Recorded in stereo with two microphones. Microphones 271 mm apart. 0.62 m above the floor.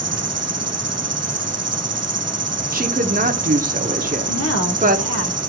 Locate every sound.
0.0 s an insect: 65° right (ahead or behind), 0.7 m
2.7 s a woman speaking: 30° right (ahead or behind), 0.9 m
4.3 s a woman speaking: 55° left (ahead or behind), 1.3 m